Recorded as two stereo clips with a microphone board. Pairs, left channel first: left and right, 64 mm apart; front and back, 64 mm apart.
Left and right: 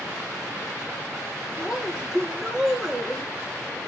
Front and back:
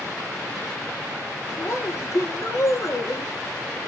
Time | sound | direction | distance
1.6 | a woman speaking | 10° right | 1.6 m